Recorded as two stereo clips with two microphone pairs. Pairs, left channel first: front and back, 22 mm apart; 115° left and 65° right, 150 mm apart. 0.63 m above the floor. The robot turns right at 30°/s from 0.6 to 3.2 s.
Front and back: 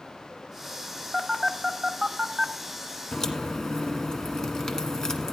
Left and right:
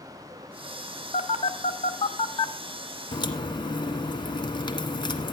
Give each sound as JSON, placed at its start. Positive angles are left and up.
{"t": 1.1, "sound": "a phone buzzing", "azimuth_deg": 110, "distance_m": 0.9}
{"t": 3.1, "sound": "a crack", "azimuth_deg": 55, "distance_m": 1.3}